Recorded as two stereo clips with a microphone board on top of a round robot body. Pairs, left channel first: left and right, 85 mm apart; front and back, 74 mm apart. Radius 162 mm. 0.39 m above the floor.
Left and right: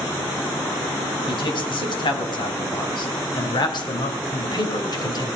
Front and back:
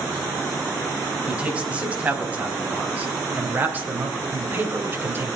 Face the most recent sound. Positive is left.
turn(degrees=125)